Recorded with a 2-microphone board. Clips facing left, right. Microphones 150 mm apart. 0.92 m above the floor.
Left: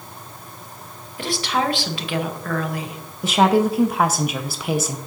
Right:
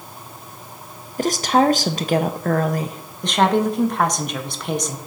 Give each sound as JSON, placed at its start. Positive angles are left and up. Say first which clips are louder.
{"t": 1.2, "sound": "a woman speaking", "louder": "right 6 dB", "side_deg": -45, "distance_m": 0.7}
{"t": 3.2, "sound": "a woman speaking", "louder": "left 1 dB", "side_deg": 5, "distance_m": 0.7}